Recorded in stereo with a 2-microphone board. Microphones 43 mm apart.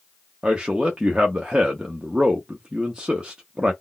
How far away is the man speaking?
About 0.5 m.